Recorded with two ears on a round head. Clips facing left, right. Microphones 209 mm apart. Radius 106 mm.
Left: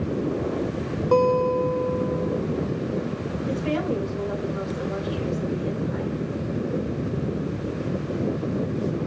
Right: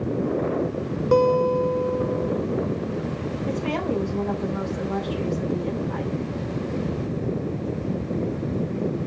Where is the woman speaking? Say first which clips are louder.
Left 1 dB; 65° right (ahead or behind), 6.5 m.